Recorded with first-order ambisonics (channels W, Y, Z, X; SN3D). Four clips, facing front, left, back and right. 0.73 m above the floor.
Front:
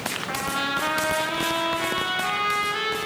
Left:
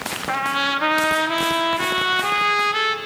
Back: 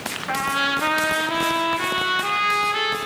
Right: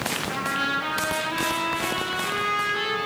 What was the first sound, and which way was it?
A trumpet, 110° left.